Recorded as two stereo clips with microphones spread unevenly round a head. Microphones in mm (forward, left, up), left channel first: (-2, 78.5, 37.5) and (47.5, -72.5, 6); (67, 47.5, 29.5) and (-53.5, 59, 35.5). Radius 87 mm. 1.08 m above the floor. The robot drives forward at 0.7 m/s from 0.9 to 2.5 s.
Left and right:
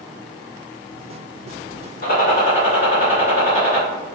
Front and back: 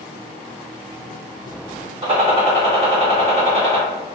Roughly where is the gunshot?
Behind left.